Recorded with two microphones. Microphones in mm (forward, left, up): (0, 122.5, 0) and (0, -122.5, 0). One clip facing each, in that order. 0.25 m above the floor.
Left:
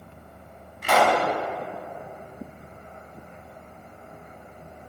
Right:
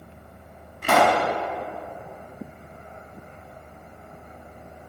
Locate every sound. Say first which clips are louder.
0.8 s a pop: right 1 dB; 55° right (ahead or behind), 1.2 m